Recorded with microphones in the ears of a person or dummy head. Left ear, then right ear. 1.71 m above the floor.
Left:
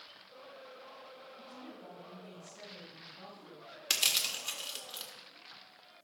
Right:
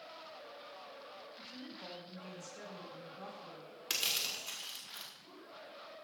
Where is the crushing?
20° left (ahead or behind), 1.5 m.